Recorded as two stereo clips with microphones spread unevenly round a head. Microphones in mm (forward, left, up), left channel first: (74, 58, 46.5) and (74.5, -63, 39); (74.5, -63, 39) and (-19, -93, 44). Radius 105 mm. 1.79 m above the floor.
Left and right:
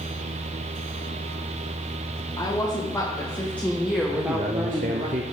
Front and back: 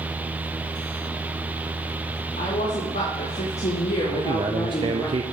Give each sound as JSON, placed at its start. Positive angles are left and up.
{"t": 2.4, "sound": "a woman speaking", "azimuth_deg": 35, "distance_m": 2.5}
{"t": 4.1, "sound": "a man speaking", "azimuth_deg": -130, "distance_m": 0.6}